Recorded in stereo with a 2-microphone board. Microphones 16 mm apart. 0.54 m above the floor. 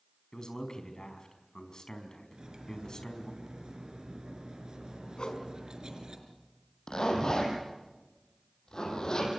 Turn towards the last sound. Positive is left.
turn(degrees=45)  # may be behind; listen again after turning